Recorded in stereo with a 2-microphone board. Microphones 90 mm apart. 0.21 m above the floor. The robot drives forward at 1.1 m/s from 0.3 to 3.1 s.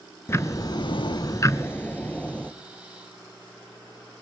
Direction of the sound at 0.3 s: 30° left (ahead or behind).